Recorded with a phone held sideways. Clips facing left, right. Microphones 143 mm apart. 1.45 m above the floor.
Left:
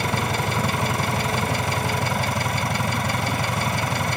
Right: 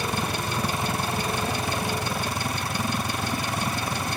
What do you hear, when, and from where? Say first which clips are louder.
0.0 s an engine running: left 4 dB; 75° left (ahead or behind)